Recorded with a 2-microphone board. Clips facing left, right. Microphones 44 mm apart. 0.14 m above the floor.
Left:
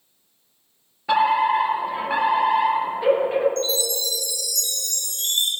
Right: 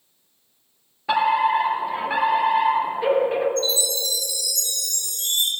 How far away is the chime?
About 4.5 m.